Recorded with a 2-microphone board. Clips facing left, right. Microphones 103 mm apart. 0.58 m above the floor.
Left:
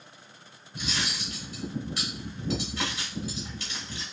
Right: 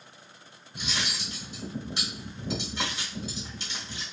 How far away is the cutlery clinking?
About 1.4 m.